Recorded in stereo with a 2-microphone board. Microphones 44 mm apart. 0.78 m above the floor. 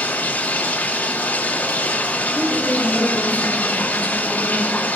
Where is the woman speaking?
35° right (ahead or behind), 4.5 m.